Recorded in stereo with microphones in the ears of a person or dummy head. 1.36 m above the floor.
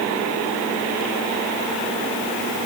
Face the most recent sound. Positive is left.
No sound to turn to.